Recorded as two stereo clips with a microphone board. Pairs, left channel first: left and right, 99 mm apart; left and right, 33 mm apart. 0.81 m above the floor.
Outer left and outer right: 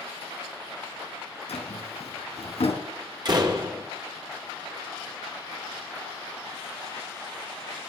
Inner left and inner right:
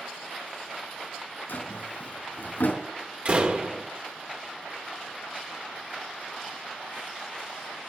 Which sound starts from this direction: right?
A door slam, at 3.2 s.